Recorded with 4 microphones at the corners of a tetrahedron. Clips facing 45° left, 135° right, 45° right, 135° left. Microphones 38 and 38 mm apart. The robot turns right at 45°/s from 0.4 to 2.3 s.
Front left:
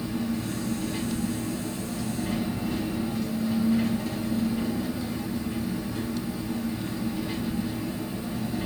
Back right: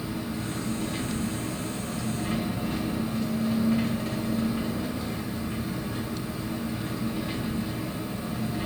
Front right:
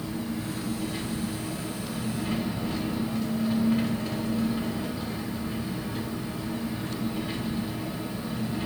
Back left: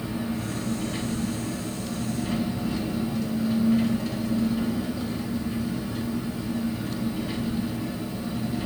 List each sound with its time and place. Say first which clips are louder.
0.0 s an engine running: front left 3 dB, back left 2 dB; 165° left, 0.9 m; by 8.7 s 110° right, 0.9 m